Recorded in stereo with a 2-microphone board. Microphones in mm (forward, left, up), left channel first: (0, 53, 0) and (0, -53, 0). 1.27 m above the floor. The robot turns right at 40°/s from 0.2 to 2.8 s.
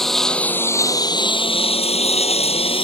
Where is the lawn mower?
5° left (ahead or behind); by 2.9 s 60° left (ahead or behind).